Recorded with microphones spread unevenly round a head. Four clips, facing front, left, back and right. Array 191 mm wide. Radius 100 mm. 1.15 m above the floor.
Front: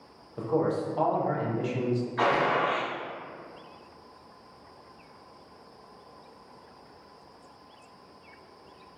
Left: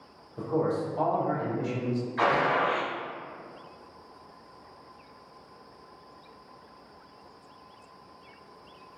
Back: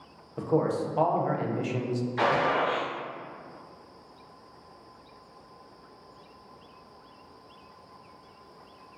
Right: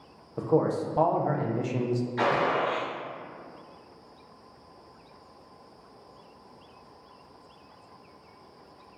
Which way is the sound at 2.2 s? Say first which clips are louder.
Left 1 dB, back 1 dB; 145° right.